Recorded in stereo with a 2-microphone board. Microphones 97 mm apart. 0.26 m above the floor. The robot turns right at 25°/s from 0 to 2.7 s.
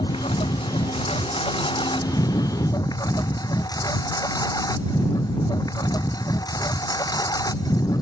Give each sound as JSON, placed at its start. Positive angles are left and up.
{"t": 0.0, "sound": "a lawn mower", "azimuth_deg": 75}